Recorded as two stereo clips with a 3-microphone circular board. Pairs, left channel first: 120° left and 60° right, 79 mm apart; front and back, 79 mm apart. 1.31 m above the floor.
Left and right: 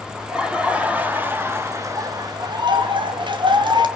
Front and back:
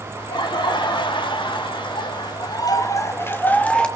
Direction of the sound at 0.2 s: 20° left.